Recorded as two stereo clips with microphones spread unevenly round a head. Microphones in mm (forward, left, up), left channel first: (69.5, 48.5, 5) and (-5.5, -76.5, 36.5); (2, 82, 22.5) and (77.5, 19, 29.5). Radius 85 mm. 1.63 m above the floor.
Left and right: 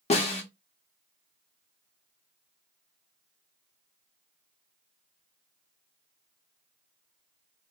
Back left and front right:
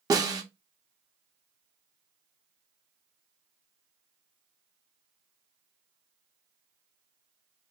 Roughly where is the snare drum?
Ahead.